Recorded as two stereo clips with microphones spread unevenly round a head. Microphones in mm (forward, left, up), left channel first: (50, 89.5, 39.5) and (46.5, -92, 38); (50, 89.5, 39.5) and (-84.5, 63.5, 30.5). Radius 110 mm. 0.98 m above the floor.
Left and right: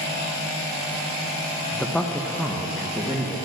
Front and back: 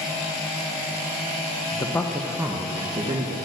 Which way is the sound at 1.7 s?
15° left.